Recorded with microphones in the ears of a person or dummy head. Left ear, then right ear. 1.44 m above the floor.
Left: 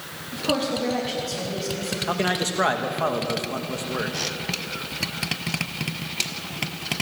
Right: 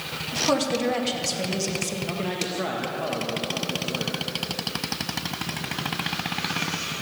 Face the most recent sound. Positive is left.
turn(degrees=50)  # may be behind; listen again after turning